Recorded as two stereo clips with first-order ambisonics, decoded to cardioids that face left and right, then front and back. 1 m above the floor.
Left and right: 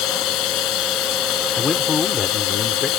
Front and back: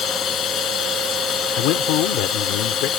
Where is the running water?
55° left.